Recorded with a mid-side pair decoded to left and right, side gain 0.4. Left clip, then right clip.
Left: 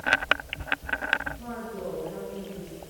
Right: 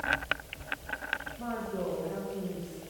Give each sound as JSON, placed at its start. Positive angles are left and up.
{"t": 1.4, "sound": "a woman speaking", "azimuth_deg": -60, "distance_m": 4.0}